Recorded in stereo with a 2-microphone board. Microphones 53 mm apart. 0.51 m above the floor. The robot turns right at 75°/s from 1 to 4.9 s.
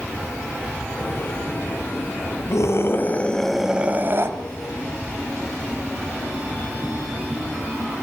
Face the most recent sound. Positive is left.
turn(degrees=-80)